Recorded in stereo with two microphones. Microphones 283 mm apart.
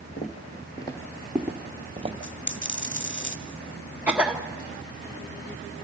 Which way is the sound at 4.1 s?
5° right (ahead or behind).